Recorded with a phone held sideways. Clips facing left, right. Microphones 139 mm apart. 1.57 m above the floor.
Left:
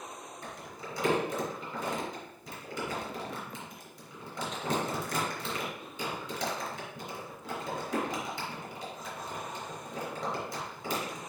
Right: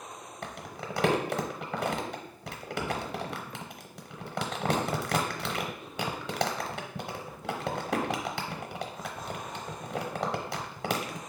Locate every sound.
0.4 s crumpling: 75° right (ahead or behind), 0.8 m